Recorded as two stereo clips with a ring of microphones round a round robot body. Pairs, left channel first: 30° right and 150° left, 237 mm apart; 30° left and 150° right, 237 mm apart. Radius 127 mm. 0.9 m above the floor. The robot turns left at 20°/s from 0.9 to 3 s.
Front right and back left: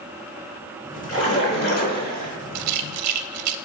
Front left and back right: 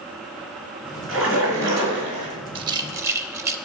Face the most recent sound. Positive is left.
turn(degrees=130)